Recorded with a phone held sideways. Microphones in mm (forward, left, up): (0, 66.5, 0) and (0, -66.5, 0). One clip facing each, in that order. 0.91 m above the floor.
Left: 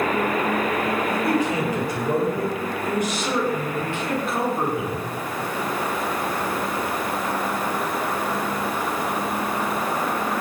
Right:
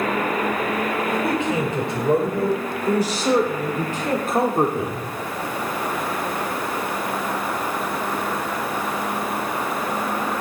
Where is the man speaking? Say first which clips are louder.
Even; 20° right (ahead or behind), 5 m; by 5.1 s 55° right (ahead or behind), 3 m.